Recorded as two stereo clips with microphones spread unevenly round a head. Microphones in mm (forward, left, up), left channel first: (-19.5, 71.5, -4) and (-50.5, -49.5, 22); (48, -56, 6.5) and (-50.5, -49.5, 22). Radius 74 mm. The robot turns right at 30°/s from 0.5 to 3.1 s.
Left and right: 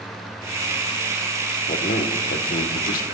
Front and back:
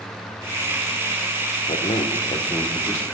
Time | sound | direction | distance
1.7 | a man speaking | 35° left | 1.2 m